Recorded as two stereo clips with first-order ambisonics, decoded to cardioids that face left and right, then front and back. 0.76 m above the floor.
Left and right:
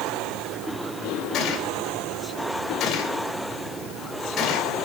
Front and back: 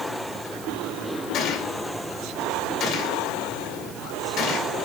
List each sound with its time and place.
1.3 s a gunshot: 35° left, 2.5 m